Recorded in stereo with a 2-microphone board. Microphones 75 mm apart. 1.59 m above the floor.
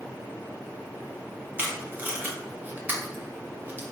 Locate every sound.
1.6 s tape being pulled: 25° right (ahead or behind), 0.9 m